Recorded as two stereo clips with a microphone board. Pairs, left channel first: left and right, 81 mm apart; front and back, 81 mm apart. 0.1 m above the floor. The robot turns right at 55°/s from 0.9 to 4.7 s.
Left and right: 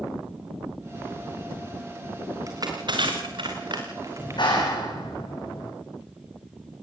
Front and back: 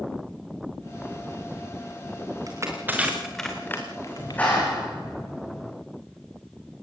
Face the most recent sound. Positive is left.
turn(degrees=85)